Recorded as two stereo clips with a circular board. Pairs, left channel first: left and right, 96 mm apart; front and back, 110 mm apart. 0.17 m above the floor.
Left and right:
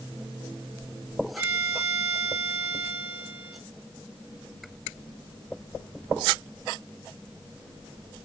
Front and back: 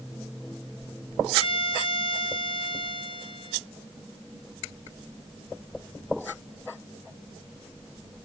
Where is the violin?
25° right, 1.3 m.